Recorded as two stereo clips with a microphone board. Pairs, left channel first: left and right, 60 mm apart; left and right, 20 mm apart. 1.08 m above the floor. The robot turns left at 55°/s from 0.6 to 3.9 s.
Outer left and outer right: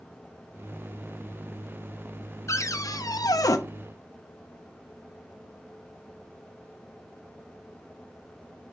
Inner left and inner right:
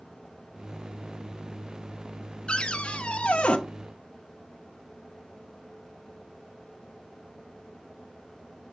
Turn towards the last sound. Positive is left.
turn(degrees=50)